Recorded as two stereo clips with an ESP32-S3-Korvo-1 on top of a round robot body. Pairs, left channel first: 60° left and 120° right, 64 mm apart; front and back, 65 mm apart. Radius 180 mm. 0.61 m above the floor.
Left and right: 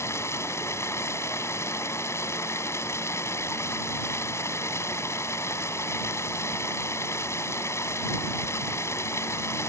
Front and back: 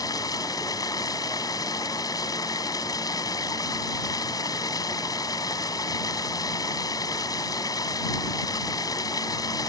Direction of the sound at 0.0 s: 15° left.